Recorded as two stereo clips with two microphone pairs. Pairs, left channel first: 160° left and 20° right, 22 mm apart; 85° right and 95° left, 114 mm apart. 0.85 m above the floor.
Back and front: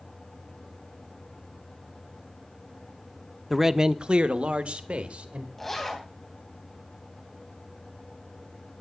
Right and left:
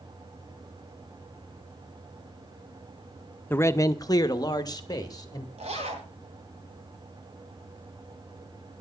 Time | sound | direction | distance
3.5 | a man speaking | 105° right | 0.5 m
5.6 | a zipper | 75° left | 3 m